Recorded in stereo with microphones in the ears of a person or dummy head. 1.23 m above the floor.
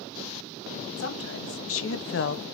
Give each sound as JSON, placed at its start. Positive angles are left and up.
{"t": 1.0, "sound": "a woman speaking", "side_deg": 75, "distance_m": 1.8}